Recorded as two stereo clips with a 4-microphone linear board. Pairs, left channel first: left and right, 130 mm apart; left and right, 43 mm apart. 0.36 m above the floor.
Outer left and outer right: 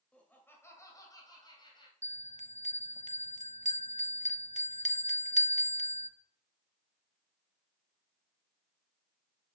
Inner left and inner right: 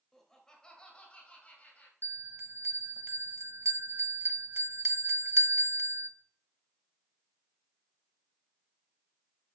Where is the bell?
65° right (ahead or behind), 0.7 m.